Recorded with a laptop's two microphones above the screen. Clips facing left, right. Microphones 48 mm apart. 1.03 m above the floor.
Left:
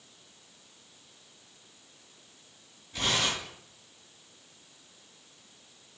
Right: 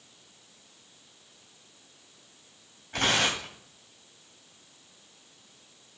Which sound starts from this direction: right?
Tearing paper, at 2.9 s.